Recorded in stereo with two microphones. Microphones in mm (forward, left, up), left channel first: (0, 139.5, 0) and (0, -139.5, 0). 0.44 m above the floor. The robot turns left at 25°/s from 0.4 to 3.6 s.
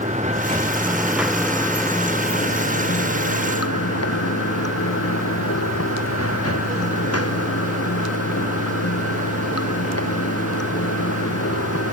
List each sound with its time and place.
0.0 s running water: 155° right; by 11.9 s 125° left